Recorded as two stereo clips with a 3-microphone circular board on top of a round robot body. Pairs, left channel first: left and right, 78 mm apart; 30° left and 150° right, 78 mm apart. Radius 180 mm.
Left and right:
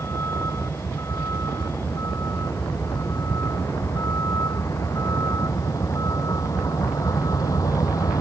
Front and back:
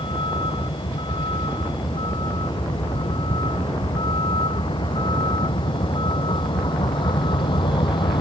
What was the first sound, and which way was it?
A vehicle, 35° left.